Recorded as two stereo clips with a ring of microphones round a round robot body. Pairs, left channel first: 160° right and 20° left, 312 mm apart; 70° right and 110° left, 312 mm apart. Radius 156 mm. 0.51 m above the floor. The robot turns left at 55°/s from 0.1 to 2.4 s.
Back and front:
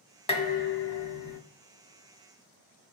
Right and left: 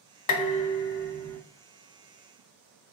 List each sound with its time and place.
0.3 s dishes clattering: 90° right, 0.8 m; by 1.4 s 150° right, 0.8 m